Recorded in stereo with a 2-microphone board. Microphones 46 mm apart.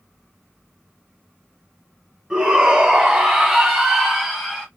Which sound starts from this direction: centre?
A shout, at 2.3 s.